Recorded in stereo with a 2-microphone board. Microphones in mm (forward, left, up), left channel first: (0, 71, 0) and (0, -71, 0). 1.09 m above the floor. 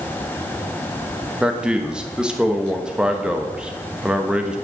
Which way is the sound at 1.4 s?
5° right (ahead or behind).